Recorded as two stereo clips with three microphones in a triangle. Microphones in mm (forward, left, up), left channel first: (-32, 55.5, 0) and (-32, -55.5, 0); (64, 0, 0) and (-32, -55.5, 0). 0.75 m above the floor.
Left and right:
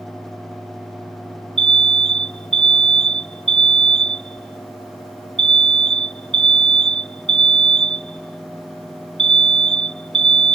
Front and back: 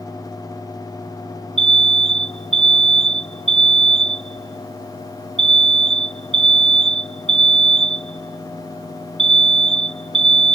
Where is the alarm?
120° right.